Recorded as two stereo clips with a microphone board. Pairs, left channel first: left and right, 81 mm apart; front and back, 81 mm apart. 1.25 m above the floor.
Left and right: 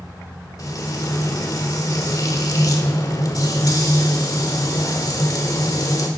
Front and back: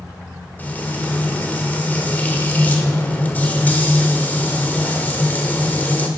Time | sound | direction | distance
0.6 | frying | 65° left | 1.5 m